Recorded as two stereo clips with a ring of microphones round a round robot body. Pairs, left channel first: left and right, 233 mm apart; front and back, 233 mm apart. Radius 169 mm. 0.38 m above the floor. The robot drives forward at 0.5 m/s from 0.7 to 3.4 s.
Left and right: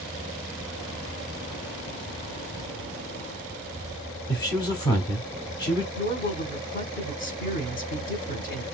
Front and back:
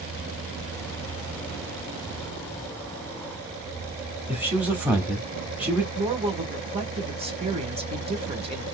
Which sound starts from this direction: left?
A man speaking, at 4.3 s.